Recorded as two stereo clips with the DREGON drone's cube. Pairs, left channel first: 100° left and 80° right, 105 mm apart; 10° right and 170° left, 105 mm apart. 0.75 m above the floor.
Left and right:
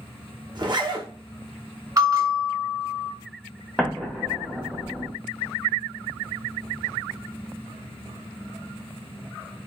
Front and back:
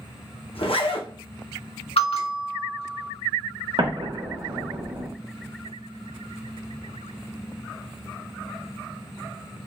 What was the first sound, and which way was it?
A zipper, 35° right.